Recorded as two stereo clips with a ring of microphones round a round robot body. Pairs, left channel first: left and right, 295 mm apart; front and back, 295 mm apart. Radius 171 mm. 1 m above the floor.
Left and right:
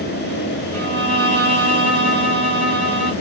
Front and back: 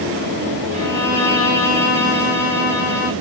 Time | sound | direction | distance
0.7 | a violin | 45° right | 1.9 m